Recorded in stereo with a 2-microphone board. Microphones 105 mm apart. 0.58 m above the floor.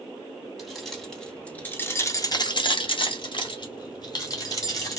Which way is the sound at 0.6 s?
Centre (ahead or behind).